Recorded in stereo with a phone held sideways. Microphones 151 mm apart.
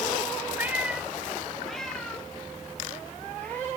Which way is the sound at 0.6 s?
15° right (ahead or behind).